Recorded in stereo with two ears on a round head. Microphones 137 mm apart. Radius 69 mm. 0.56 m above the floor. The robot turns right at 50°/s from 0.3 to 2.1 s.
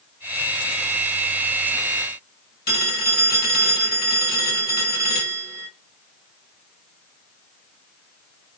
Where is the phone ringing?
70° left (ahead or behind), 2.0 m.